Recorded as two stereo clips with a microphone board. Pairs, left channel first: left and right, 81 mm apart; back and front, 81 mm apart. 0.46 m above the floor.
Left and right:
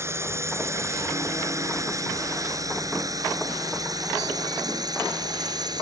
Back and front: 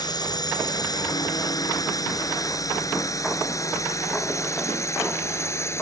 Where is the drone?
145° right; by 5.8 s 125° right.